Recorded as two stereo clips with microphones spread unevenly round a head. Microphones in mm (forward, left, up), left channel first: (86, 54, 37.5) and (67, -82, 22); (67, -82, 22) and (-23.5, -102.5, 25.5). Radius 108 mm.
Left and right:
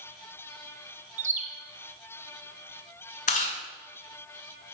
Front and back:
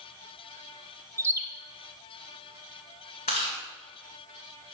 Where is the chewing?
60° left, 2.0 m.